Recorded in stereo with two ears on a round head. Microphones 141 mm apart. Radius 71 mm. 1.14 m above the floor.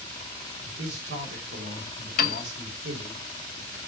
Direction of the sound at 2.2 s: 65° left (ahead or behind).